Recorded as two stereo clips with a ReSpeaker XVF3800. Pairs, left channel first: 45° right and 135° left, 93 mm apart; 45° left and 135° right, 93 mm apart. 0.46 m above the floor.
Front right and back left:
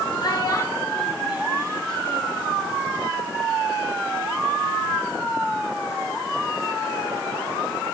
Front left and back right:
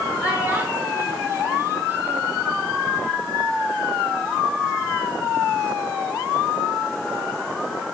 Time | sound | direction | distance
0.2 | a child speaking | 65° right | 1.0 m